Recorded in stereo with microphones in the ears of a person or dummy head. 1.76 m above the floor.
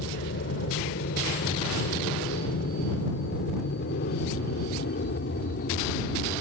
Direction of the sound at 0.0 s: 65° left (ahead or behind).